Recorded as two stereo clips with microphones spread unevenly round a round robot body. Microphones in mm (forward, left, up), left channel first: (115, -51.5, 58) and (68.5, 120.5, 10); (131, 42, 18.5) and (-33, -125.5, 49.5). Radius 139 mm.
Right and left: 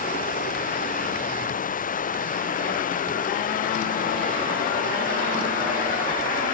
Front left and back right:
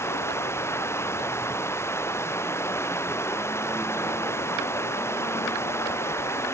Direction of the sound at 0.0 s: 35° right.